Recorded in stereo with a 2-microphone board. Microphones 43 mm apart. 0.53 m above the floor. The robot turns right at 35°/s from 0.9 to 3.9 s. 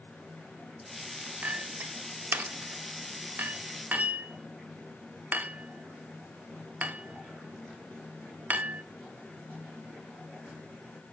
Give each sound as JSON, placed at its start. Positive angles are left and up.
{"t": 1.4, "sound": "a clink", "side_deg": -35, "distance_m": 0.6}